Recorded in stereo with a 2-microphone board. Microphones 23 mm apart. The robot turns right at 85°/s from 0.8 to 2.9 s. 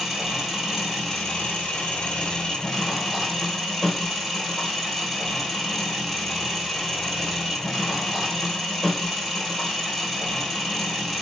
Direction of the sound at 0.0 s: 5° right.